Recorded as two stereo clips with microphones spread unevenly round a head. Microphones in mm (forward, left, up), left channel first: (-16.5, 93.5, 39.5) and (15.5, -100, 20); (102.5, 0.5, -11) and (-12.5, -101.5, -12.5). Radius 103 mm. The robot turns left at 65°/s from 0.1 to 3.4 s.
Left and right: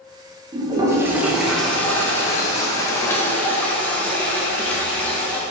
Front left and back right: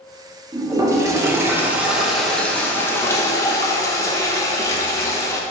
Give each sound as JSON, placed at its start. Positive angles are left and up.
{"t": 0.5, "sound": "a toilet flushing", "azimuth_deg": -120, "distance_m": 0.8}